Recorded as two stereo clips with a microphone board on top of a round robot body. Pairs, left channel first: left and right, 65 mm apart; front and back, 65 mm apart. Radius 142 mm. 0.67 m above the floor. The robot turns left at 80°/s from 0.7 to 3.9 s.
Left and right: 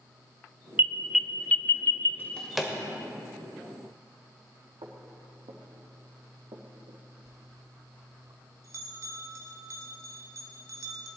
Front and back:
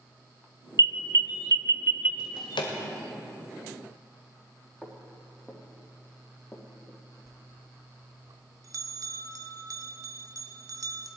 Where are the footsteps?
95° right, 3 m; by 7.0 s 60° right, 2.5 m.